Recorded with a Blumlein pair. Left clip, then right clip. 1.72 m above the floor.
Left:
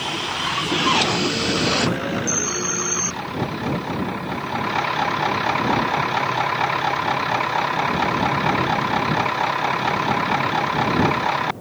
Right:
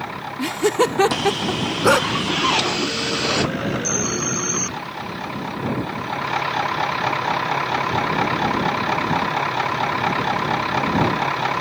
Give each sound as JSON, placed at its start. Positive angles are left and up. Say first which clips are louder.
{"t": 0.4, "sound": "laughter", "louder": "right 3 dB", "azimuth_deg": -55}
{"t": 1.8, "sound": "a dog barking", "louder": "right 8 dB", "azimuth_deg": -50}